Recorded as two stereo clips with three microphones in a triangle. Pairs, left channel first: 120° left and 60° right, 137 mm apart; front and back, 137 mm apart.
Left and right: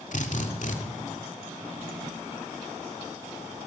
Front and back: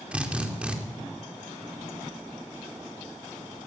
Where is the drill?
100° left, 2.5 m.